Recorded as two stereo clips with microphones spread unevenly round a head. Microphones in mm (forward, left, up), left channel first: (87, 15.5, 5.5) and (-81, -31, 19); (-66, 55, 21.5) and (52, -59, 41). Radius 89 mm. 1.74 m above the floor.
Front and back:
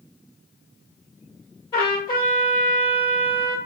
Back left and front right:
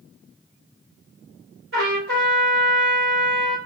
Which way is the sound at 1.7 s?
50° right.